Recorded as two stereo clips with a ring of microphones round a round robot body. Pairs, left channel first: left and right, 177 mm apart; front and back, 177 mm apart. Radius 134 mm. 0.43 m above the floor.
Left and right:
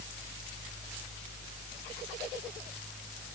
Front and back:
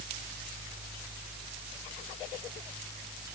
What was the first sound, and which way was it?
Only background noise.